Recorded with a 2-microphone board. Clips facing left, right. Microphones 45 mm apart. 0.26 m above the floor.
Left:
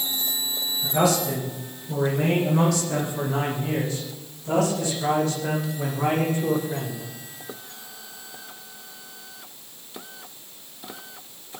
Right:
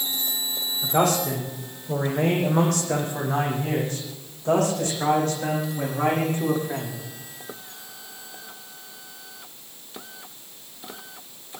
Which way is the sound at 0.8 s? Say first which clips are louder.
Even; 45° right (ahead or behind).